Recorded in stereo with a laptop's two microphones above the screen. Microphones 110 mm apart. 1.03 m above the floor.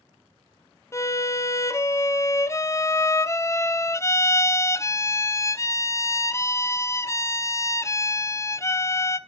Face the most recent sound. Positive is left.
turn(degrees=30)  # may be behind; listen again after turning